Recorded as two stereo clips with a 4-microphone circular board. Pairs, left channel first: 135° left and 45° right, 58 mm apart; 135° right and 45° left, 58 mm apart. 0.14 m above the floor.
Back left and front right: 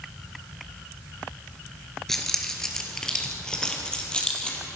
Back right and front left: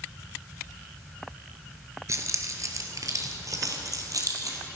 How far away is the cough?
I don't hear a cough.